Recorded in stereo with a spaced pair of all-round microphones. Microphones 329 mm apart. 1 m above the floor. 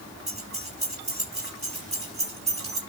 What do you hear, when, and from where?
0.3 s keys jangling: 20° right (ahead or behind), 8.5 m